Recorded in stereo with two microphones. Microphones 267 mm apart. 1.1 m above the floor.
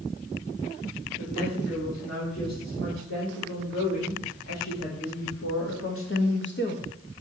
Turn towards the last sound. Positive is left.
turn(degrees=35)  # may be behind; listen again after turning